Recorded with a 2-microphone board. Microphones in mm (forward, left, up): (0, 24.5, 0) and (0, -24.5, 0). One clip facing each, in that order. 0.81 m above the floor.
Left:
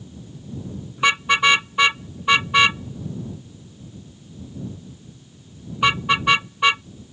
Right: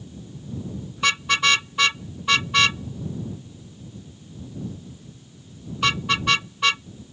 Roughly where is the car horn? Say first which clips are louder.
Left 4 dB; centre.